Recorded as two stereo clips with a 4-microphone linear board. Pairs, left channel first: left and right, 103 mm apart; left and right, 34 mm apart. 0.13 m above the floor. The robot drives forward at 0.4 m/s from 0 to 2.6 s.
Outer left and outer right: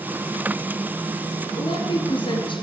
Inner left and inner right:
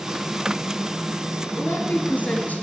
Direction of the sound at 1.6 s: 55° left (ahead or behind).